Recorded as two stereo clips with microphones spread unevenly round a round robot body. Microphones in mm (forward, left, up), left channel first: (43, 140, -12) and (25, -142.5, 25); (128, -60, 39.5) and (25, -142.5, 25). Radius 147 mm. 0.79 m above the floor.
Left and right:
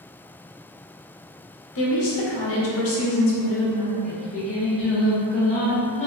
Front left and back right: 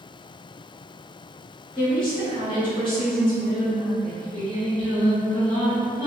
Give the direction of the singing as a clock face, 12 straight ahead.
7 o'clock.